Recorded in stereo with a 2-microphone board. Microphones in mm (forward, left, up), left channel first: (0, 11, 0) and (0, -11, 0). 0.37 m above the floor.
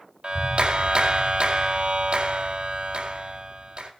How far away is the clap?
About 2 m.